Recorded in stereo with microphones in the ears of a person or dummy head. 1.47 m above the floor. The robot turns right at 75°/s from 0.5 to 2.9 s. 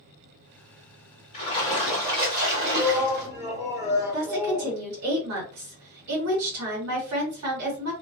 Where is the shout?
Centre (ahead or behind), 0.8 m; by 4.8 s 10° right (ahead or behind), 0.8 m.